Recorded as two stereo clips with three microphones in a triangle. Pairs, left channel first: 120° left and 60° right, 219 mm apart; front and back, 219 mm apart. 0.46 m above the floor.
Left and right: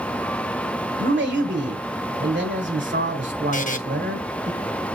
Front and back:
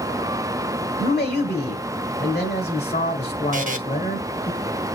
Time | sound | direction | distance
1.0 | a man speaking | 35° right | 1.5 m
3.5 | a buzzer | 150° left | 0.5 m